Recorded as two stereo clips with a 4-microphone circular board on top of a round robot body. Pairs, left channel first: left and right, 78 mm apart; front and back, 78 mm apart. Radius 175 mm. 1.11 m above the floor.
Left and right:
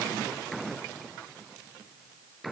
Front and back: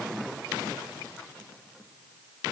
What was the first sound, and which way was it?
Only background noise.